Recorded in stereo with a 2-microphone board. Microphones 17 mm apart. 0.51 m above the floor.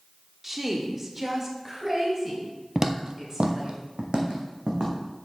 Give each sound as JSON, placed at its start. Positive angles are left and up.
{"t": 0.4, "sound": "a woman speaking", "side_deg": -20, "distance_m": 1.0}
{"t": 2.8, "sound": "footsteps", "side_deg": -25, "distance_m": 0.6}